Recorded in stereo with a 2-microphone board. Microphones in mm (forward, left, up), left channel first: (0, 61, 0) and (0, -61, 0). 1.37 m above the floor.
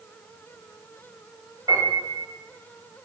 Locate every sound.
1.7 s a piano: 30° right (ahead or behind), 2.0 m